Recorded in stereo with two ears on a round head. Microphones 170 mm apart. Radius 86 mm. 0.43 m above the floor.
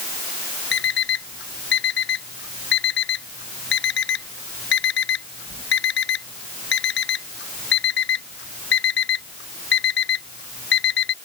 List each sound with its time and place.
0.7 s an alarm clock: 60° left (ahead or behind)